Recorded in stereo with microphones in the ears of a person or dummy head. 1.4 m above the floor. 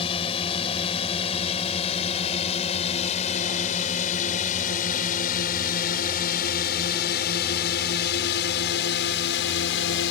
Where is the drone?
30° left (ahead or behind); by 10.1 s 60° left (ahead or behind).